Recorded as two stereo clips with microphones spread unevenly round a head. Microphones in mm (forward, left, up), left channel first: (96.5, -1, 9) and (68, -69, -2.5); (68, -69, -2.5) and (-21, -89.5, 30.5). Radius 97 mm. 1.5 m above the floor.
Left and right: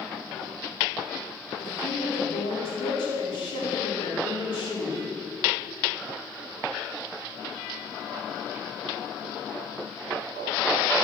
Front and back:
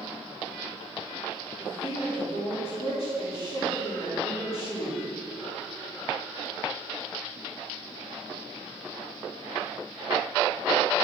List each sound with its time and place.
1.6 s a woman speaking: 65° left, 4 m